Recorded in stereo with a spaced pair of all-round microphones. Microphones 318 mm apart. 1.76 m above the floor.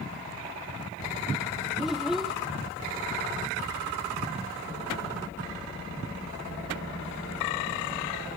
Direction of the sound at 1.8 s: Centre (ahead or behind).